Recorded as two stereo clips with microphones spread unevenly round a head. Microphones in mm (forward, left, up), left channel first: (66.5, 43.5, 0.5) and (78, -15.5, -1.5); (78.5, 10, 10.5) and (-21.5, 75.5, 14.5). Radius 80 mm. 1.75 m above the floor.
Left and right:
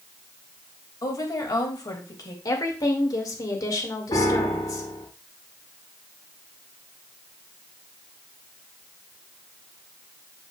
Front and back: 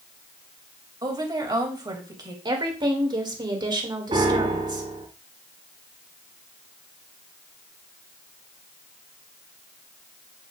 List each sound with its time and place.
1.0 s a woman speaking: 90° left, 2.5 m
2.5 s a woman speaking: 95° left, 2.5 m
4.1 s a piano: 105° left, 5 m